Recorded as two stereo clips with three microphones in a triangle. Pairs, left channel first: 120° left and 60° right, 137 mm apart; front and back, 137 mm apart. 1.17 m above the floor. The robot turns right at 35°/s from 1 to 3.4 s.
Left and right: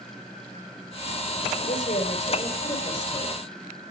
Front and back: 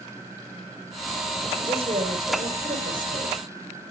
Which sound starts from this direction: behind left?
A woman speaking, at 1.6 s.